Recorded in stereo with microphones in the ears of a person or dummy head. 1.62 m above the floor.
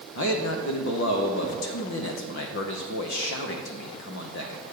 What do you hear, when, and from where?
0.1 s a man speaking: 70° left (ahead or behind), 0.7 m